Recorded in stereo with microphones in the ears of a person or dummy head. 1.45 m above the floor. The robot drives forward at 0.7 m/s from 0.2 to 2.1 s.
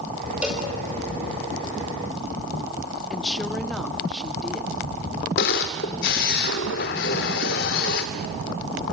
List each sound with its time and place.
0.4 s a cowbell: 10° right (ahead or behind), 5.5 m
3.1 s a woman speaking: 5° left (ahead or behind), 0.9 m
5.4 s a camera shutter: 55° left (ahead or behind), 1.7 m